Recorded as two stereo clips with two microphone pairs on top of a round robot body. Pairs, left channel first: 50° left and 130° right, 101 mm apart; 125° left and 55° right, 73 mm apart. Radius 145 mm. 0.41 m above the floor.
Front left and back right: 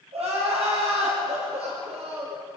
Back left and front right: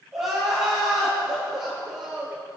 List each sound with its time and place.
0.1 s crying: 140° right, 9.5 m